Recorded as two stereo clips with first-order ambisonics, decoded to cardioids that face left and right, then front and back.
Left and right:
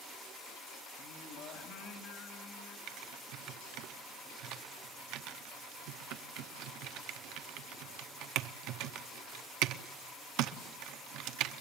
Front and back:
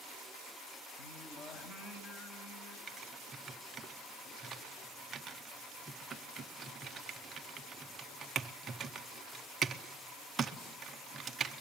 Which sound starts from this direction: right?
Typing on a keyboard, at 2.9 s.